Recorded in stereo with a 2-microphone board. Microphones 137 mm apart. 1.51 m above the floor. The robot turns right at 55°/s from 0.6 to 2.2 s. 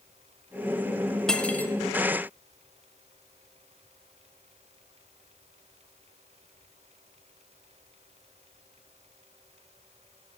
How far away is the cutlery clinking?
About 0.6 m.